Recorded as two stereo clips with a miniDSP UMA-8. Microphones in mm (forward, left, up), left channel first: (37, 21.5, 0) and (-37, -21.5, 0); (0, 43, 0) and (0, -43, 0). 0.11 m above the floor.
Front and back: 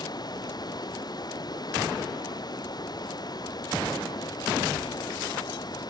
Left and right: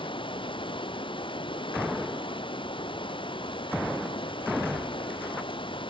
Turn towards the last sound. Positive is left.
turn(degrees=70)